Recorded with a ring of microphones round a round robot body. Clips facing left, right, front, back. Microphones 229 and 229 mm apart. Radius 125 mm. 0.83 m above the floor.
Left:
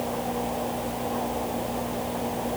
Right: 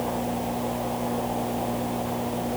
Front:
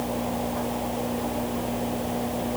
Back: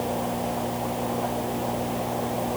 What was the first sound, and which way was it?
Only background noise.